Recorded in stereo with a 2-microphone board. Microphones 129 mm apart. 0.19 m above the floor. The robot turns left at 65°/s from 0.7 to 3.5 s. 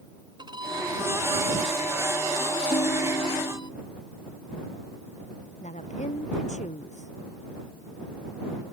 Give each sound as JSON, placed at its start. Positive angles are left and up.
{"t": 0.4, "sound": "a violin", "azimuth_deg": -125}
{"t": 2.7, "sound": "a ringtone", "azimuth_deg": 85}
{"t": 5.6, "sound": "a woman speaking", "side_deg": 75}